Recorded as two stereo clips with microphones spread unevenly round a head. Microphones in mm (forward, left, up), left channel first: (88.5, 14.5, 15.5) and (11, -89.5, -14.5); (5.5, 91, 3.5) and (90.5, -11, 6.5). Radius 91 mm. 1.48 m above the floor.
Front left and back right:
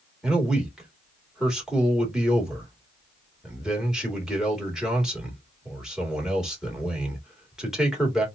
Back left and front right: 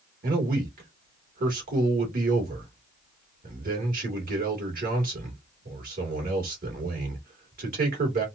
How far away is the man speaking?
About 2.5 m.